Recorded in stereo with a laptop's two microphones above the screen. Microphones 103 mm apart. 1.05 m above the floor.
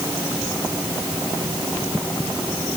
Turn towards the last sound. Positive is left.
No sound to turn to.